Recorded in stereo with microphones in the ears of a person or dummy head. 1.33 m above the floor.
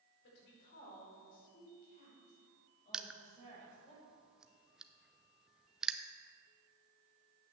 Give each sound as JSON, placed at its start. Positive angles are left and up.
{"t": 0.2, "sound": "a woman speaking", "side_deg": 60, "distance_m": 5.0}
{"t": 2.9, "sound": "crushing", "side_deg": -5, "distance_m": 0.6}